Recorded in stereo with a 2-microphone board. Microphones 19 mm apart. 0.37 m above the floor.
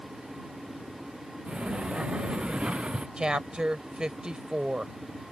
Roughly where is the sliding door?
Right.